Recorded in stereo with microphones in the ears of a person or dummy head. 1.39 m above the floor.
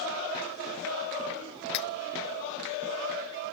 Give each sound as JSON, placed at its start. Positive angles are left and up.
{"t": 1.7, "sound": "cutlery clinking", "side_deg": 65}